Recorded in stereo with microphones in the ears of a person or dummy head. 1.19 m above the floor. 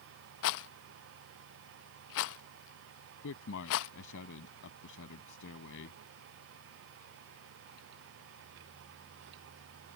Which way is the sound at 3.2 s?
65° left (ahead or behind).